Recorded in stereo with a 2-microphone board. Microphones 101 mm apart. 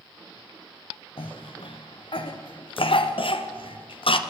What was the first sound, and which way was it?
A cough, 70° left (ahead or behind).